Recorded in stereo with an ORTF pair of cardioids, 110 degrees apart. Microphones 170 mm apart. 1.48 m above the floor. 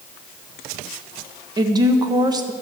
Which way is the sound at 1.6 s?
25° right.